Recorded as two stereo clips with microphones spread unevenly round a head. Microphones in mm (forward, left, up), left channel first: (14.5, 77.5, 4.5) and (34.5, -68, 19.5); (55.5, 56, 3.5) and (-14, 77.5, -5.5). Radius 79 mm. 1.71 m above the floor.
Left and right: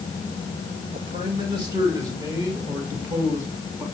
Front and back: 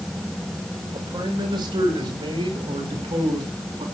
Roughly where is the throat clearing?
No throat clearing in this recording.